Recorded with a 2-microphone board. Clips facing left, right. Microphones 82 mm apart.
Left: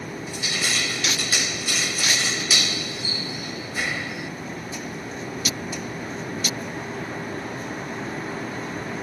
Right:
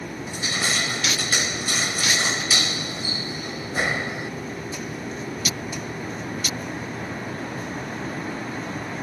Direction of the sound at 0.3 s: 35° right (ahead or behind).